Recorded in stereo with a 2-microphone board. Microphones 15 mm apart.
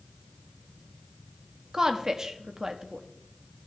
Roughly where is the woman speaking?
Right.